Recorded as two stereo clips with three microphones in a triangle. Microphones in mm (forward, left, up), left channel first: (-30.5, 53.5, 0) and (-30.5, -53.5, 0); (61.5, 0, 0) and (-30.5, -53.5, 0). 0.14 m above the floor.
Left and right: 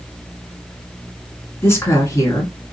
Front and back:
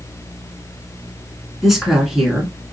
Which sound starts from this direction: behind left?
A woman speaking, at 1.6 s.